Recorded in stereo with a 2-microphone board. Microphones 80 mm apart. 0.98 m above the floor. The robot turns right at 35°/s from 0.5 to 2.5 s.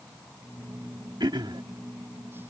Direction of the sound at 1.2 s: 65° right (ahead or behind).